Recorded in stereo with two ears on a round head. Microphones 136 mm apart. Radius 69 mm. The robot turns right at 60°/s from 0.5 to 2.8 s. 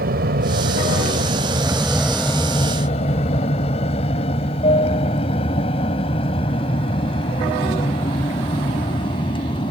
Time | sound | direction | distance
0.0 | an aircraft | 60° right (ahead or behind) | ?